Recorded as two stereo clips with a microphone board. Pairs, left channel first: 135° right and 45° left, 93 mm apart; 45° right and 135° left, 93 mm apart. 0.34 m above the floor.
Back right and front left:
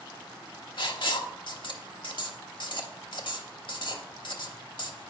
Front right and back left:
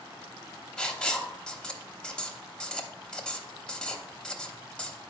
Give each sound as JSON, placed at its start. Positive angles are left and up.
{"t": 0.8, "sound": "writing", "azimuth_deg": -125, "distance_m": 0.9}